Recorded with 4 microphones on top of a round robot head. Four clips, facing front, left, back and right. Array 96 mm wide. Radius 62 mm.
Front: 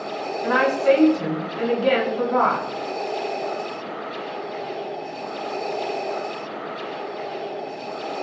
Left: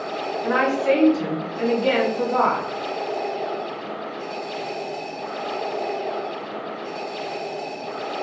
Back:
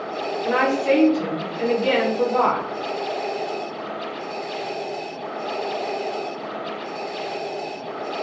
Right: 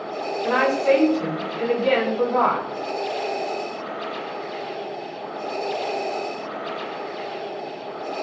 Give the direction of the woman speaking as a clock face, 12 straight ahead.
11 o'clock.